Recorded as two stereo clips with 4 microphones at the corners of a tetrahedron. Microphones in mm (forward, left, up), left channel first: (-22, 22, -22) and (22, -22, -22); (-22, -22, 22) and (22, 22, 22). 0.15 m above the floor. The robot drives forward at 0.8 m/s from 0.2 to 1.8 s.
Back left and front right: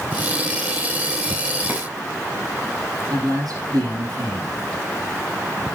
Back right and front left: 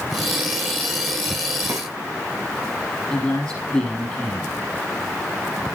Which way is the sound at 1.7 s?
25° left.